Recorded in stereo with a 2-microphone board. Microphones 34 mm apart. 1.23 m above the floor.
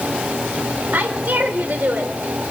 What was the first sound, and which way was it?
A woman speaking, 80° right.